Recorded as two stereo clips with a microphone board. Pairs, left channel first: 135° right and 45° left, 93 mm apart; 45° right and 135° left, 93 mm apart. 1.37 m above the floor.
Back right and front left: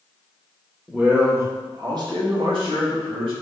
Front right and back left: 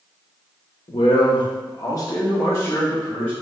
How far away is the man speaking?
About 0.9 m.